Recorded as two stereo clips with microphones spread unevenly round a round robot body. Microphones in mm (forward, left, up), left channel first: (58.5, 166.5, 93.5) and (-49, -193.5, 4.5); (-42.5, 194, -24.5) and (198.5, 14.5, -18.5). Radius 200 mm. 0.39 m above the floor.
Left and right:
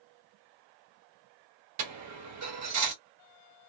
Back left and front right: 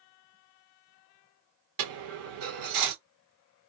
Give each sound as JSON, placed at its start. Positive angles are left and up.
{"t": 1.8, "sound": "a dropped coin", "azimuth_deg": -55, "distance_m": 1.0}